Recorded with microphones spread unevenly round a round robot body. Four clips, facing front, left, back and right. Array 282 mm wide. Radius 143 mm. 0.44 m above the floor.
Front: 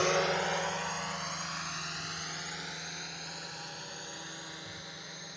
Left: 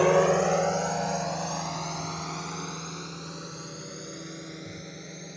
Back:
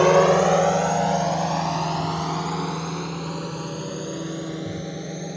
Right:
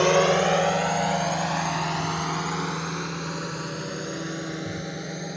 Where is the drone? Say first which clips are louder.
Right 1 dB, back 14 dB; straight behind; by 5.4 s 150° right.